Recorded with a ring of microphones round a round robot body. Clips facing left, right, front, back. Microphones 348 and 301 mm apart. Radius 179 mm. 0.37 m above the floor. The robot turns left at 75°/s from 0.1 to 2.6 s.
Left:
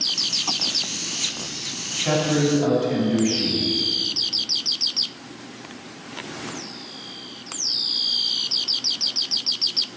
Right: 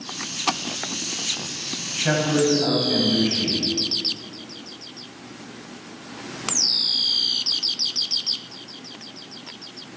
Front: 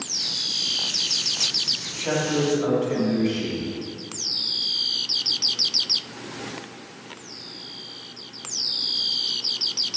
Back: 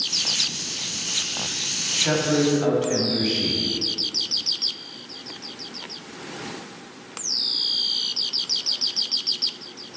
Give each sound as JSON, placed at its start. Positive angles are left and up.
{"t": 1.9, "sound": "a man speaking", "azimuth_deg": -115, "distance_m": 3.0}